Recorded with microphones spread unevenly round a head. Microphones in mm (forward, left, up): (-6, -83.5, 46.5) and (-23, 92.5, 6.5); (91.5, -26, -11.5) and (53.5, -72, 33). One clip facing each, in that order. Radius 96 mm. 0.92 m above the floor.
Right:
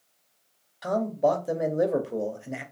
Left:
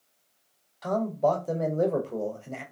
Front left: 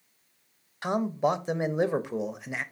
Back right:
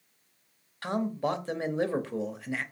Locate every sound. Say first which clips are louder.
0.8 s a man speaking: right 1 dB, front left 4 dB; 5° left, 0.5 m